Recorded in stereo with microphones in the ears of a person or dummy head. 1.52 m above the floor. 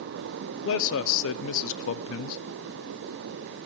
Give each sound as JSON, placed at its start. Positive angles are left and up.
{"t": 0.7, "sound": "a man speaking", "side_deg": 75, "distance_m": 0.6}